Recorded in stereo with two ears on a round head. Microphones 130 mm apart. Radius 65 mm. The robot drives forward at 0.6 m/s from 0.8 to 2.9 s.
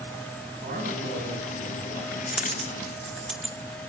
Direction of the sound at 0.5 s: 45° right (ahead or behind).